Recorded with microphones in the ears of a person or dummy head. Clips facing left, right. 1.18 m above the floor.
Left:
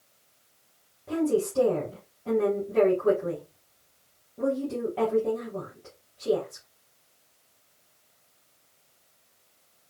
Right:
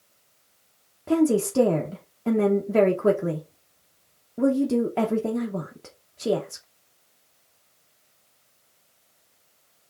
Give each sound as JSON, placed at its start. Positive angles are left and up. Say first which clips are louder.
{"t": 1.1, "sound": "a woman speaking", "louder": "right 5 dB", "side_deg": -80, "distance_m": 0.8}